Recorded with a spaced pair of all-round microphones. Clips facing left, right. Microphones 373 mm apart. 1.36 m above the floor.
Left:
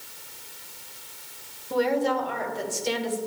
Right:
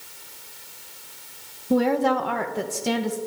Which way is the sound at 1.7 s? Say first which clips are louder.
Right 4 dB; 60° right (ahead or behind).